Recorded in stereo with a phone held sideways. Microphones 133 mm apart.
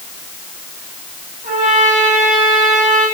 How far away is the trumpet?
About 8 m.